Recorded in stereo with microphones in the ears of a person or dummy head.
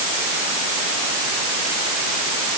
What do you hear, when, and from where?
Only background noise.